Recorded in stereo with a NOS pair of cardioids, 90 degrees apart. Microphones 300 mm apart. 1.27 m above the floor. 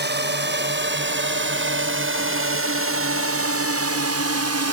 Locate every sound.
0.0 s a drone: 35° right; by 4.7 s 60° right